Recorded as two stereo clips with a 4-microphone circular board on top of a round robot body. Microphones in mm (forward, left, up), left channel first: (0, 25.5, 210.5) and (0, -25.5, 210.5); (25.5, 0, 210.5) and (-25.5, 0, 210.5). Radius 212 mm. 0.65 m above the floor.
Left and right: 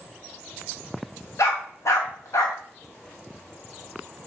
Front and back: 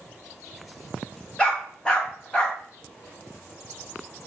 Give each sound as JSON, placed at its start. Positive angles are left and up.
{"t": 1.4, "sound": "a dog barking", "azimuth_deg": 75, "distance_m": 1.0}